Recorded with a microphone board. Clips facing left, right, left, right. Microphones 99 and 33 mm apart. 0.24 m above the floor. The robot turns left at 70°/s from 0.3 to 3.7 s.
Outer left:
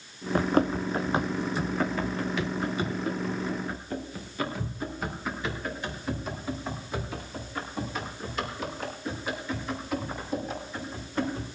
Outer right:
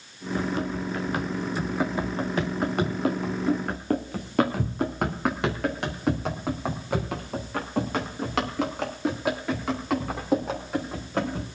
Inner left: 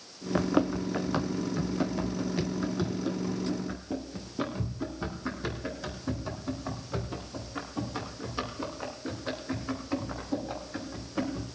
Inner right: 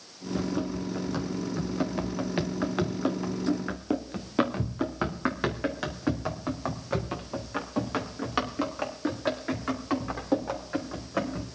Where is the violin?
I don't hear a violin.